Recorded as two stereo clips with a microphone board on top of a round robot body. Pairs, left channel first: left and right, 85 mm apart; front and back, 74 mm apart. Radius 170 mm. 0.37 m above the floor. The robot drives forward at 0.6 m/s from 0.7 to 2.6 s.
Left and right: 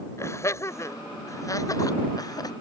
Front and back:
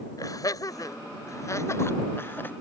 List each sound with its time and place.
0.2 s laughter: 35° left; by 2.5 s 60° left